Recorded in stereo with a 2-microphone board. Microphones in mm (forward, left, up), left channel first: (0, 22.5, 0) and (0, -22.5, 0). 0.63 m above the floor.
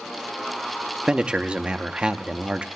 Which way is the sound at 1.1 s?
25° right (ahead or behind).